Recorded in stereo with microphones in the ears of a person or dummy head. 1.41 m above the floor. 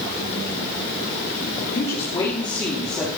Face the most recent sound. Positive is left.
turn(degrees=5)  # may be behind; listen again after turning